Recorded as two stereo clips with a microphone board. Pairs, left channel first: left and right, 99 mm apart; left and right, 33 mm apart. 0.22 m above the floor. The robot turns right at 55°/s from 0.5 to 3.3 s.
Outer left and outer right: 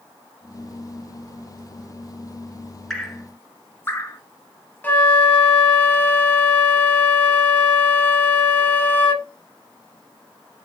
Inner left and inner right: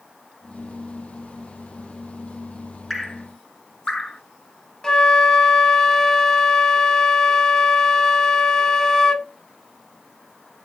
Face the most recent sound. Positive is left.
turn(degrees=20)  # may be behind; listen again after turning